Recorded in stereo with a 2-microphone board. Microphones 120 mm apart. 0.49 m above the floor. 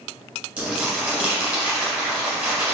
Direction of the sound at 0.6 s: 15° right (ahead or behind).